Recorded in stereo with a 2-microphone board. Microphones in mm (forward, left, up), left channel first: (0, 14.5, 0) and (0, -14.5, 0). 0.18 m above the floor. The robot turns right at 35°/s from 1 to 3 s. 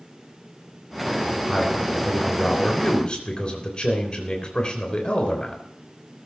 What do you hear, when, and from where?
1.5 s a man speaking: 15° right, 3.5 m; by 5.6 s 40° left, 3.5 m